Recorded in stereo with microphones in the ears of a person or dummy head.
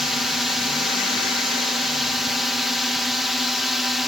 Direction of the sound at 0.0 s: 5° right (ahead or behind).